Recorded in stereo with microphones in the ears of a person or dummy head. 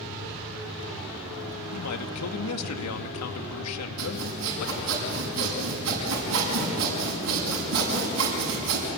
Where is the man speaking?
85° left, 2 m.